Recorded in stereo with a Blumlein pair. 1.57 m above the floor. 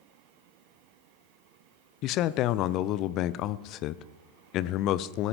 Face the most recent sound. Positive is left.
turn(degrees=35)